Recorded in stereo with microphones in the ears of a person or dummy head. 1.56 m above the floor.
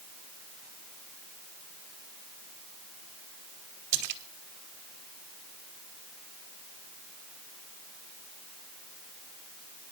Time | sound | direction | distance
3.9 | a splash | 60° right (ahead or behind) | 2.5 m